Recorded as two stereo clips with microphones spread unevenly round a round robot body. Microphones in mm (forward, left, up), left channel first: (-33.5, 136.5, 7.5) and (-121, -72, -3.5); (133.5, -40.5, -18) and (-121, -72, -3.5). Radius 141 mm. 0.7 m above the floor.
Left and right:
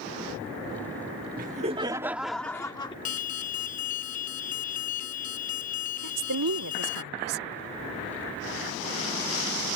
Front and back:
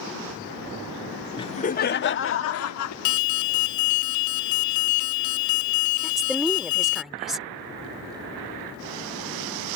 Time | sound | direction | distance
1.4 | laughter | 60° right | ?
3.0 | an alarm | 5° left | ?
6.0 | a woman speaking | 85° right | ?